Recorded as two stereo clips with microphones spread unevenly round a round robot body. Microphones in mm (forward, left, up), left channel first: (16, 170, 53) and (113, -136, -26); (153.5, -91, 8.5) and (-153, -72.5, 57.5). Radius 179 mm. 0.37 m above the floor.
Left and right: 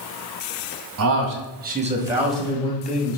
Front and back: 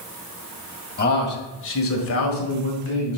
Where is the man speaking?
55° right, 2.5 m; by 3.2 s 45° left, 2.5 m.